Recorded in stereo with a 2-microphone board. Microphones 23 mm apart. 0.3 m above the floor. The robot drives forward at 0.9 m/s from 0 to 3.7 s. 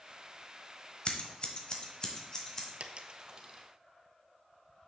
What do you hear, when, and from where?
1.1 s scissors: 45° left (ahead or behind), 1.0 m; by 2.7 s 25° left (ahead or behind), 1.7 m
2.8 s a dropped coin: 55° right (ahead or behind), 0.5 m; by 3.7 s 25° right (ahead or behind), 1.1 m